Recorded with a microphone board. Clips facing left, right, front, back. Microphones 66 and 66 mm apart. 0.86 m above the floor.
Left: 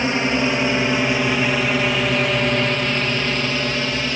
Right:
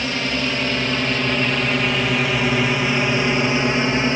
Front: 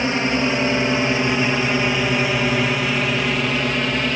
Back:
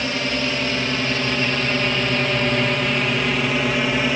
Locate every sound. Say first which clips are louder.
0.0 s a drone: left 4 dB, front 4 dB; 45° left; by 4.2 s 105° right